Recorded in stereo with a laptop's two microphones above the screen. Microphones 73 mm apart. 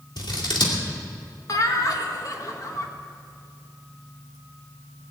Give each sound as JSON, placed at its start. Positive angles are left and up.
{"t": 0.2, "sound": "scissors", "side_deg": 85, "distance_m": 2.5}
{"t": 1.5, "sound": "laughter", "side_deg": 50, "distance_m": 1.5}